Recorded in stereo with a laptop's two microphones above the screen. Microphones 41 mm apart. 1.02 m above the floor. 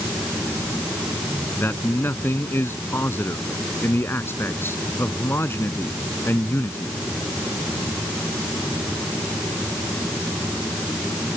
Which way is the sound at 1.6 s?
75° left (ahead or behind).